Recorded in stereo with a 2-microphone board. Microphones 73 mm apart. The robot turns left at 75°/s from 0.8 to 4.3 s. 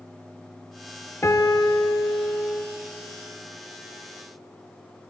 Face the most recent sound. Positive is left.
turn(degrees=-90)